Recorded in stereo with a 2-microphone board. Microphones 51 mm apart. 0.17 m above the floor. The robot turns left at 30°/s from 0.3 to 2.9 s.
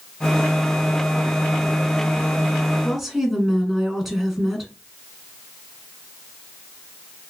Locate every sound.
2.8 s a woman speaking: 5° right (ahead or behind), 1.8 m